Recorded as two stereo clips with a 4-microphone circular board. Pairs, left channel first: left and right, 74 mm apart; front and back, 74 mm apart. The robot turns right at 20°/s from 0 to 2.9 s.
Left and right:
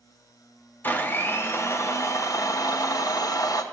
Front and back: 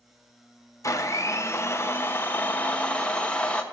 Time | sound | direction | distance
0.8 | a blender | 30° left | 1.0 m